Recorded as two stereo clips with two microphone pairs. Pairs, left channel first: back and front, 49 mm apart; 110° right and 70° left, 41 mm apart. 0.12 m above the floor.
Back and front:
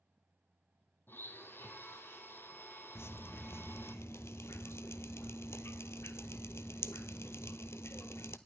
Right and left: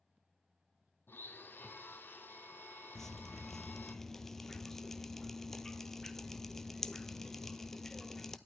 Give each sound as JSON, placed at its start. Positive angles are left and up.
{"t": 1.1, "sound": "a blender", "azimuth_deg": -140, "distance_m": 1.2}
{"t": 3.0, "sound": "dripping", "azimuth_deg": 170, "distance_m": 0.5}